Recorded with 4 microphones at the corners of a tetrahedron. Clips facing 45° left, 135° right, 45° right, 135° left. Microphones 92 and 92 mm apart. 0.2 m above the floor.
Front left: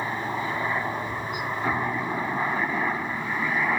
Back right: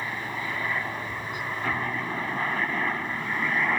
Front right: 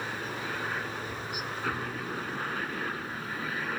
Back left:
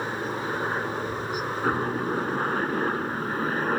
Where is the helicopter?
95° left; by 3.8 s 125° left.